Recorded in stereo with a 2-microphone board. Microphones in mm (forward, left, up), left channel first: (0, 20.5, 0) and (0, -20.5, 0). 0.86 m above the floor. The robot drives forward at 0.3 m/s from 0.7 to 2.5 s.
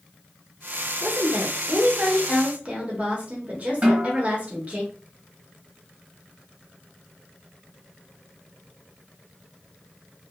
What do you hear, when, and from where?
1.0 s a woman speaking: 40° right (ahead or behind), 0.7 m; by 4.8 s 35° right (ahead or behind), 0.8 m
3.8 s a snare drum: 30° right (ahead or behind), 1.2 m